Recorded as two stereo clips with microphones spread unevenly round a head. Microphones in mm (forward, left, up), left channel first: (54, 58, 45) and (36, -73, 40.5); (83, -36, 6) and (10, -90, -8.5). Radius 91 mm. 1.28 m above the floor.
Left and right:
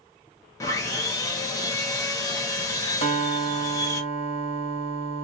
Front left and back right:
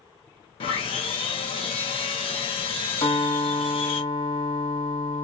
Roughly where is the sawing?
Ahead.